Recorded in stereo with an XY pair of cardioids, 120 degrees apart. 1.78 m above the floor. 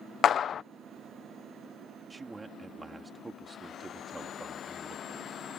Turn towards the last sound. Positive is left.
turn(degrees=-20)